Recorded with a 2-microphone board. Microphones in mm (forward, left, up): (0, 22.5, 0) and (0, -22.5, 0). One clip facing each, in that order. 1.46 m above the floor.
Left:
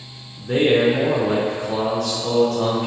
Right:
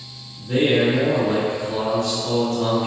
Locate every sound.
0.4 s a man speaking: 85° left, 0.8 m